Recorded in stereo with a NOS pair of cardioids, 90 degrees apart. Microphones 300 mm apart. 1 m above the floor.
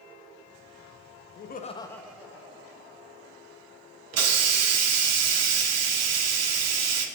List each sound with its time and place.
1.4 s laughter: 45° left, 0.6 m; by 3.3 s 25° right, 1.6 m
4.1 s a hiss: 60° right, 0.7 m